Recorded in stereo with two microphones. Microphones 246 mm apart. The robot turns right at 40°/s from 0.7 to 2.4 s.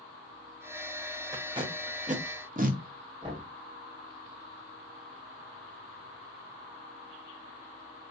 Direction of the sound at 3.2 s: 15° right (ahead or behind).